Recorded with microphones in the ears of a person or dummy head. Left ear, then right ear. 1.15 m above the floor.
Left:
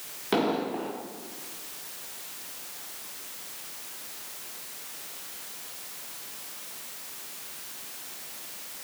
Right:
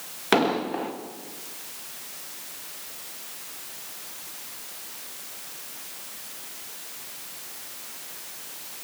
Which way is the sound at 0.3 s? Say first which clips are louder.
Right 4 dB; 45° right (ahead or behind).